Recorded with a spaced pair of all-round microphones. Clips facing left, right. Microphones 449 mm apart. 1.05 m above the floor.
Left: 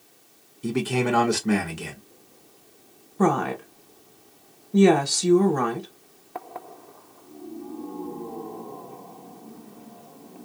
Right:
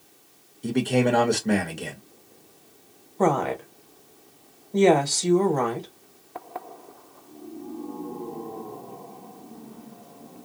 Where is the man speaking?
25° left (ahead or behind), 0.9 m.